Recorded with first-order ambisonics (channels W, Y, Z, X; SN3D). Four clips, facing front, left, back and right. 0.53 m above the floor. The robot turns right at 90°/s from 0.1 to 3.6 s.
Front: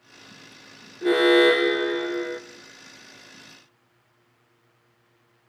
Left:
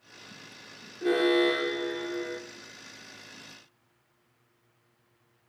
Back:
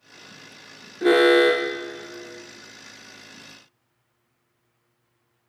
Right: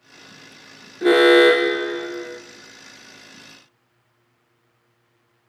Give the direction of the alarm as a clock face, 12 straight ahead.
4 o'clock.